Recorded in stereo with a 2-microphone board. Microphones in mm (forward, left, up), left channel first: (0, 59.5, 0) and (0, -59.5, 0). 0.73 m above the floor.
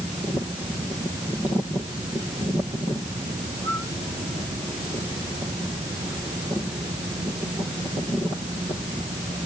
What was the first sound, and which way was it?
Only background noise.